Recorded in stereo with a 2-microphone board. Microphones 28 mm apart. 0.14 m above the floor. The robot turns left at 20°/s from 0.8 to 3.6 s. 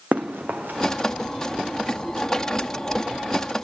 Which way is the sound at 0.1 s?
65° right (ahead or behind).